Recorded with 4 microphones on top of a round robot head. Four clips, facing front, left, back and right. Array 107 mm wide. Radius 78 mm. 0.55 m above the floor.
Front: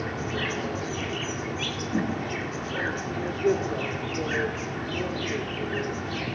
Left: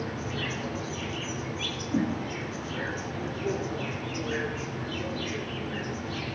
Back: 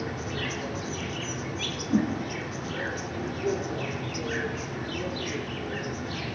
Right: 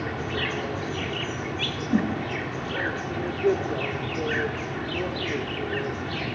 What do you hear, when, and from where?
0.0 s an insect: 55° right, 1.6 m
1.9 s a whoosh: 105° right, 5.5 m